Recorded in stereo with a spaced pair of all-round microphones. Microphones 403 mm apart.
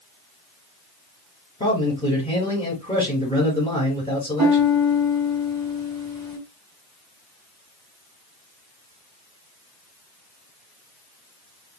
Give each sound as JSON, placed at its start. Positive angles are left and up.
{"t": 1.6, "sound": "a man speaking", "side_deg": 15, "distance_m": 3.5}
{"t": 4.4, "sound": "a piano", "side_deg": -40, "distance_m": 1.1}